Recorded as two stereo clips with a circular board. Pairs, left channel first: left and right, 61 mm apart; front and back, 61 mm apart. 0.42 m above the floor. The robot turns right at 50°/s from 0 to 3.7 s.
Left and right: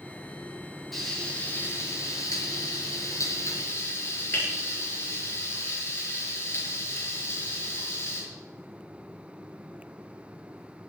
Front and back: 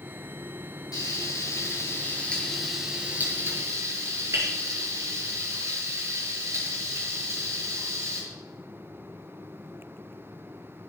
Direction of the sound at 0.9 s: Straight ahead.